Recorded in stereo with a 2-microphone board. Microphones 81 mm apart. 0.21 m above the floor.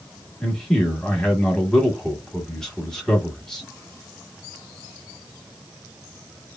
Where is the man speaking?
5° left (ahead or behind), 1.1 m.